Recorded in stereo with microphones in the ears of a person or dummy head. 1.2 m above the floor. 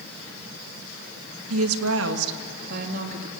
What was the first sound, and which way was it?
A woman speaking, 75° right (ahead or behind).